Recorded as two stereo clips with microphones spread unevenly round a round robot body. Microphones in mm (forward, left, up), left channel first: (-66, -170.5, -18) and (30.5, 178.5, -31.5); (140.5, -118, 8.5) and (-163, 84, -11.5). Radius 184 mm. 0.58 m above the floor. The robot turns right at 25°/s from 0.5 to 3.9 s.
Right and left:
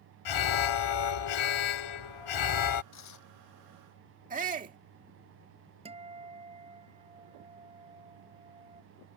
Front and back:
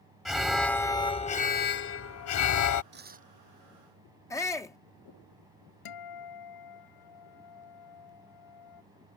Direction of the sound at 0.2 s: 125° right.